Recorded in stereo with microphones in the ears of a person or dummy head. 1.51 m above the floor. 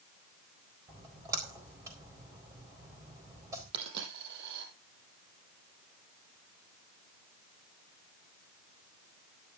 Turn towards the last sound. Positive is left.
turn(degrees=-65)  # may be behind; listen again after turning